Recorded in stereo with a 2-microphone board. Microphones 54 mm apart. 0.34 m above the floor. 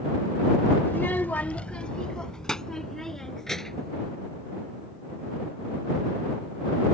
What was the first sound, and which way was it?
A child speaking, 30° left (ahead or behind).